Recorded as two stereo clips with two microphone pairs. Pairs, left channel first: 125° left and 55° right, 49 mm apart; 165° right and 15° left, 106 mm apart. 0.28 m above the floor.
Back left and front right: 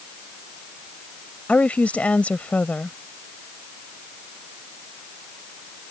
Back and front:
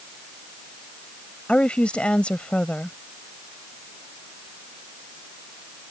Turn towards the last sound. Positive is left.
turn(degrees=130)